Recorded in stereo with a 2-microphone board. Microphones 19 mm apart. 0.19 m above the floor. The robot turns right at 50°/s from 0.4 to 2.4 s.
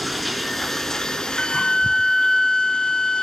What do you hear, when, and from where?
0.0 s running water: 5° left, 1.9 m; by 3.2 s 105° left, 1.9 m
1.4 s a flute: 90° left, 0.5 m; by 3.2 s 140° left, 0.5 m